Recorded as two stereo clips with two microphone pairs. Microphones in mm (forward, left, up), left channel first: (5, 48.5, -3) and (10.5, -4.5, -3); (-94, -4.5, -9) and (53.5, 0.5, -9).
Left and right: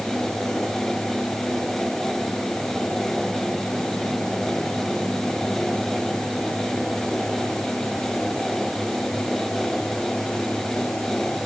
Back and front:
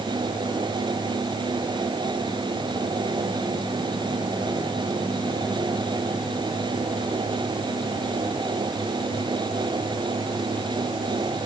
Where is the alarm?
No alarm in this recording.